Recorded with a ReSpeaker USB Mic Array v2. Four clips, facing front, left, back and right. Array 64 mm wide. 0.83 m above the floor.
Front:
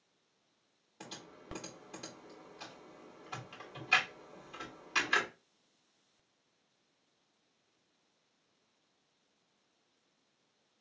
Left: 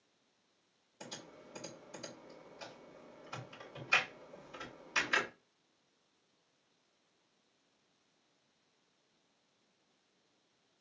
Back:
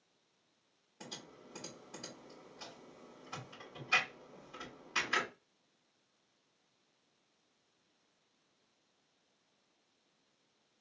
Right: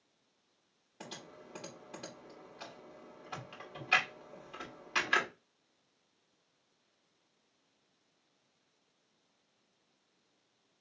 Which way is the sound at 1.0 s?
75° right.